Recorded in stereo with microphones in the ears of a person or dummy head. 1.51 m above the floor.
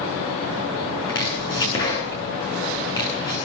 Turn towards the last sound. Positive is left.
turn(degrees=20)  # may be behind; listen again after turning